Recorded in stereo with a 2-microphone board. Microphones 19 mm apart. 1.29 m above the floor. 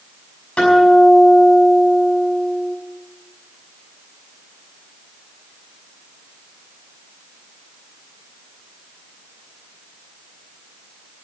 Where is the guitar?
80° left, 5.5 m.